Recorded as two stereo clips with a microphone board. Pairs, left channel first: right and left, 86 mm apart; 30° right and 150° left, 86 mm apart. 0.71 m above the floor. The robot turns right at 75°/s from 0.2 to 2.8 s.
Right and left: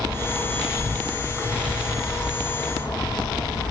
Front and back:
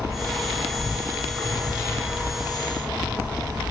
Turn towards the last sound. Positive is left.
turn(degrees=-115)